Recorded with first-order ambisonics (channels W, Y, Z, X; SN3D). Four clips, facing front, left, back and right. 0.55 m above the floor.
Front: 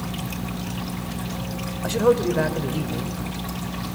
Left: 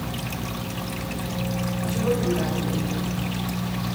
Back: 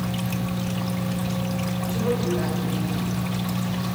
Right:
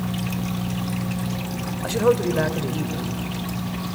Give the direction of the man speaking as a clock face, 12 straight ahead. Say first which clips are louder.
Right 5 dB, front 7 dB; 1 o'clock.